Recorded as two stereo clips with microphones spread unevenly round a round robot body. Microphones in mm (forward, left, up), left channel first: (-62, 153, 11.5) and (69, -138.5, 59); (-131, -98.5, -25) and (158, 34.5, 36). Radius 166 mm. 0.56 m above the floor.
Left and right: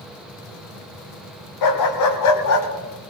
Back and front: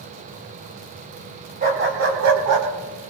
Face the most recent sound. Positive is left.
turn(degrees=65)